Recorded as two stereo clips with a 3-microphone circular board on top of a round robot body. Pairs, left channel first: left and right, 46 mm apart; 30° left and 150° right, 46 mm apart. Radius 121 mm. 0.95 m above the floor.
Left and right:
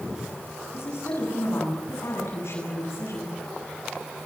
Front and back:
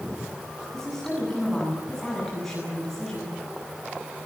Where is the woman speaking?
115° left, 9.5 m.